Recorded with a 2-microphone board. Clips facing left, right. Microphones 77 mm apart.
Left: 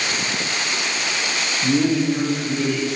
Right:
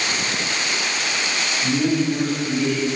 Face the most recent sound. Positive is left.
turn(degrees=20)  # may be behind; listen again after turning